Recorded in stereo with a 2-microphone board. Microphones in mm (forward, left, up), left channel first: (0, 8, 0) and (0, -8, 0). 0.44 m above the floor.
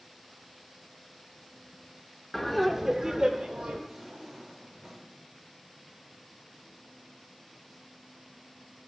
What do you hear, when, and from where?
2.3 s laughter: 25° left (ahead or behind), 0.9 m; by 3.8 s 60° right (ahead or behind), 1.7 m
3.9 s a drawer: 35° right (ahead or behind), 4.5 m